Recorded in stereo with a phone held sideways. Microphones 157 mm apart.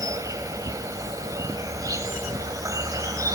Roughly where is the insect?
Right.